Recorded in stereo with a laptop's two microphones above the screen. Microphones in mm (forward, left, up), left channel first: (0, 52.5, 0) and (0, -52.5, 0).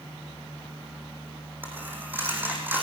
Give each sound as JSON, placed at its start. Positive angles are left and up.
{"t": 1.6, "sound": "a dropped coin", "side_deg": -20, "distance_m": 4.5}